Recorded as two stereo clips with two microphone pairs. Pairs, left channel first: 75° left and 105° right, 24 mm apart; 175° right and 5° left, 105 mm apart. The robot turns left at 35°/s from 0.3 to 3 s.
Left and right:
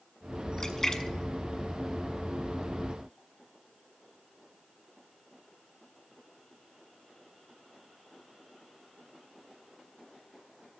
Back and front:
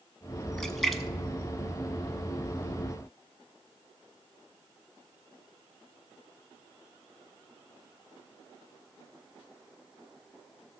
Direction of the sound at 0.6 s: 105° left.